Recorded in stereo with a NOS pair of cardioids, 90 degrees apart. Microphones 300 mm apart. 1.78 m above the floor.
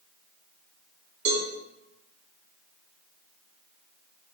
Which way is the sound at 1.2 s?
65° right.